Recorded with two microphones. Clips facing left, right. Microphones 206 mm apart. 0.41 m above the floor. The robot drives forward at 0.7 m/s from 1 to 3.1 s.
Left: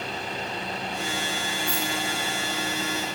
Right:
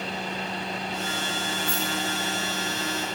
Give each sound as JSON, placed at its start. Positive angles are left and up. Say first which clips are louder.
{"t": 1.7, "sound": "keys jangling", "louder": "even", "side_deg": 65, "distance_m": 5.5}